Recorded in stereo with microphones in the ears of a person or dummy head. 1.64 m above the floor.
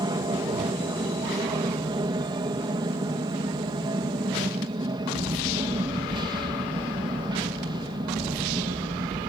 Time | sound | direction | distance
0.0 | an aircraft | 25° right (ahead or behind) | ?